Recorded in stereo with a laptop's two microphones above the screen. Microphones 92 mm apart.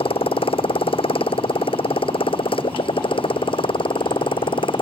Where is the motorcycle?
80° left; by 4.8 s 70° left (ahead or behind).